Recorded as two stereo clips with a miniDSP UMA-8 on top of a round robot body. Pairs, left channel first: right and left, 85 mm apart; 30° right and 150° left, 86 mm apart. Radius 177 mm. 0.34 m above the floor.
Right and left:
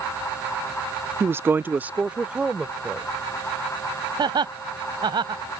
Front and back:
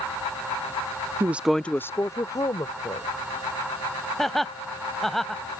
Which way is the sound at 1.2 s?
125° left.